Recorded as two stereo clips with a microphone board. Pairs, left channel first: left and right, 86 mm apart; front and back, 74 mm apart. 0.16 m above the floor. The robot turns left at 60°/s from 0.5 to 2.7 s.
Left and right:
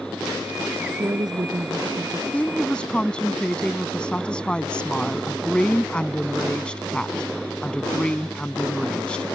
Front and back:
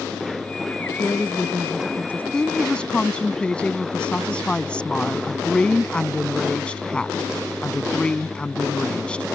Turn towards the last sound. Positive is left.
turn(degrees=40)